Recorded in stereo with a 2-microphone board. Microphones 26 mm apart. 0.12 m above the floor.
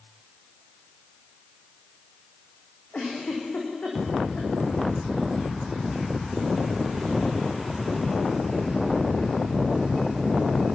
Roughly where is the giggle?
Left.